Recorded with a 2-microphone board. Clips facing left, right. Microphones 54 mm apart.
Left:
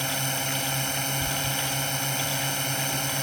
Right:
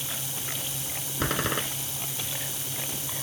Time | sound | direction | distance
0.0 | a drone | 55° left (ahead or behind) | ?
1.2 | a door slam | 60° right (ahead or behind) | ?